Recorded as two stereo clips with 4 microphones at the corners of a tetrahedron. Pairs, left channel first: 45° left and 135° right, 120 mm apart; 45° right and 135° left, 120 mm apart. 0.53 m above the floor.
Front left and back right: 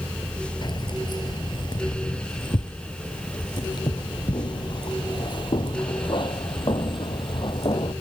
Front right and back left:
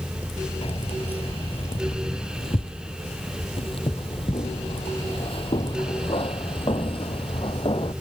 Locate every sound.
0.6 s keys jangling: 10° right; by 7.9 s 5° right